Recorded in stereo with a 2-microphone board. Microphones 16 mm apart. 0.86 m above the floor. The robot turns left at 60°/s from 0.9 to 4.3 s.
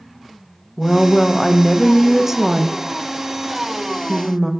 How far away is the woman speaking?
About 0.5 m.